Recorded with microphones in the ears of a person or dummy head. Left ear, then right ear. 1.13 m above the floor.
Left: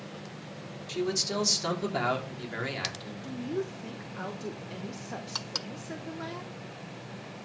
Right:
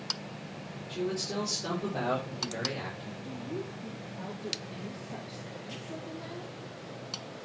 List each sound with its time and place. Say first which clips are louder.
0.9 s a man speaking: left 4 dB; 75° left (ahead or behind), 3.5 m; by 3.1 s 50° left (ahead or behind), 3.5 m
3.2 s a woman speaking: left 6 dB; 55° left (ahead or behind), 0.9 m